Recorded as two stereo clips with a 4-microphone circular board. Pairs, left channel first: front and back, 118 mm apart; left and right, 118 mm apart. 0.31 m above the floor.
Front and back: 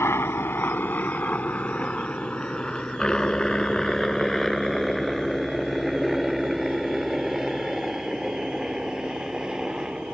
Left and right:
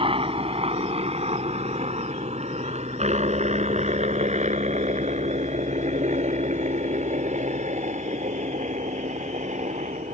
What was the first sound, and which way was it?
A helicopter, 65° right.